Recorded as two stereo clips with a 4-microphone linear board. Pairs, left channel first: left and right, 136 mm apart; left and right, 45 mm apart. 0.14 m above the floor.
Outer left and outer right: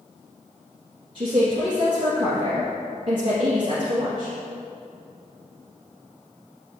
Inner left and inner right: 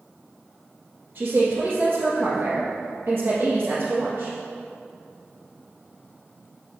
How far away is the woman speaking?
About 1.8 m.